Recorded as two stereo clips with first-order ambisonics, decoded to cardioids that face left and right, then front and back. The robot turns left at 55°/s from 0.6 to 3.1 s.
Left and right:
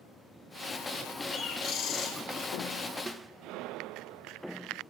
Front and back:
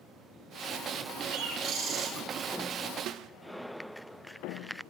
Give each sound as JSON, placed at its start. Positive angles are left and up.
{"t": 1.3, "sound": "a bird", "azimuth_deg": 160, "distance_m": 2.5}
{"t": 3.1, "sound": "a snare drum", "azimuth_deg": -165, "distance_m": 0.5}